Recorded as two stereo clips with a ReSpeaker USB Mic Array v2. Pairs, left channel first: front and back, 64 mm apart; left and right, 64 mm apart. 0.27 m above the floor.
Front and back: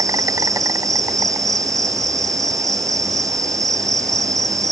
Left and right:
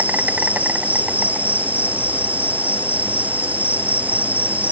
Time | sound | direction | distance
0.0 | an insect | 155° right | ?